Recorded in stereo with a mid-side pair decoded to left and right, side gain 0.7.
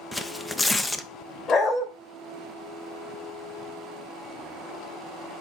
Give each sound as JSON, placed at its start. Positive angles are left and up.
{"t": 0.1, "sound": "tearing paper", "azimuth_deg": 10, "distance_m": 0.8}
{"t": 1.5, "sound": "a dog barking", "azimuth_deg": 35, "distance_m": 3.0}